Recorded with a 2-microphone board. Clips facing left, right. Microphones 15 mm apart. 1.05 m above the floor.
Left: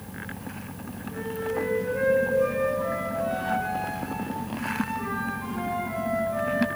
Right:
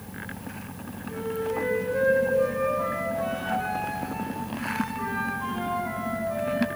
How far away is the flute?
About 4.5 m.